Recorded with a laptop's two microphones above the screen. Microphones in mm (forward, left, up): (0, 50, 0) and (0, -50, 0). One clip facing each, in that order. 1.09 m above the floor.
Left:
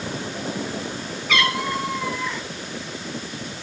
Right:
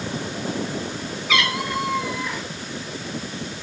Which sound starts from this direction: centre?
A cat meowing, at 1.3 s.